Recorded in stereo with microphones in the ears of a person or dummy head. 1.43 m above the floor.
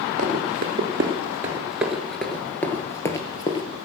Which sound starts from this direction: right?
Running footsteps, at 0.2 s.